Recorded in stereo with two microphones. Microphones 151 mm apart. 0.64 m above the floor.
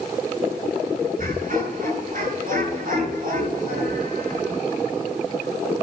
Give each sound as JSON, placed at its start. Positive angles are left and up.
{"t": 1.2, "sound": "laughter", "side_deg": -70, "distance_m": 8.5}